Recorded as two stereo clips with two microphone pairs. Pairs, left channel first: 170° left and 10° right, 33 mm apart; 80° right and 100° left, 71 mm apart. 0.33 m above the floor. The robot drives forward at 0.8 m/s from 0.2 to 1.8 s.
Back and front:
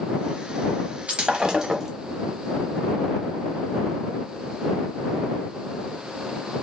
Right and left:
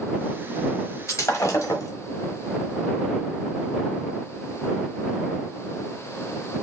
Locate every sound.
1.1 s breaking glass: 50° right, 1.1 m; by 1.9 s 90° right, 0.9 m